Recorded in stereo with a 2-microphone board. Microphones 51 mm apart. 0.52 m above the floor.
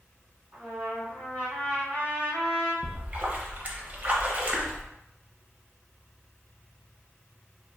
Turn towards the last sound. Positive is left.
turn(degrees=-35)  # may be behind; listen again after turning